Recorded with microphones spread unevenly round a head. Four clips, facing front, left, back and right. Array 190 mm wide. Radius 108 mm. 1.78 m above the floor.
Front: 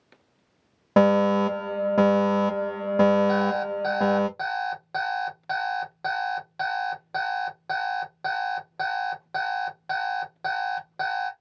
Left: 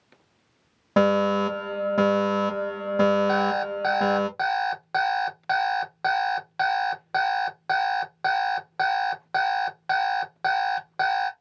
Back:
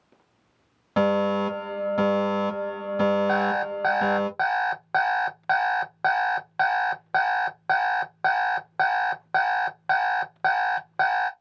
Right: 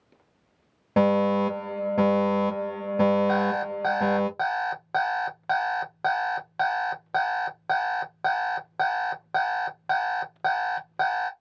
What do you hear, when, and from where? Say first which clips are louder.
1.0 s a fire alarm: left 1 dB, front 3 dB; 10° right, 1.4 m
3.3 s an alarm clock: left 1 dB, even; 135° right, 0.9 m